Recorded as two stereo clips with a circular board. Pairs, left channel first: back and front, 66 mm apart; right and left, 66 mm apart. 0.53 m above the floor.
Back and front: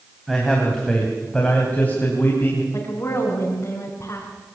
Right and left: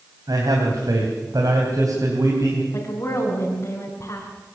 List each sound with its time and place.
0.3 s a man speaking: 85° left, 3.5 m; by 2.6 s 120° left, 4 m
2.7 s a woman speaking: 130° right, 4.5 m